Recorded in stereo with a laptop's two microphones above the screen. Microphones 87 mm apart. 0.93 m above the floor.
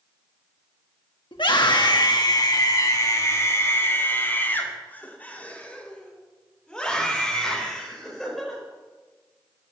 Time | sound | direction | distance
1.3 | a scream | 65° left (ahead or behind) | 1.5 m